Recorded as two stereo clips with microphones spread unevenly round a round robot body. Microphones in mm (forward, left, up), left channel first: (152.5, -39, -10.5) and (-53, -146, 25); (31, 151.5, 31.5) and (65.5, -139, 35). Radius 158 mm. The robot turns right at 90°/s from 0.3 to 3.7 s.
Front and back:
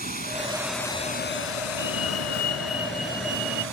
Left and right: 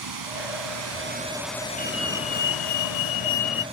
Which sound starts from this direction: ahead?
A fire alarm, at 1.8 s.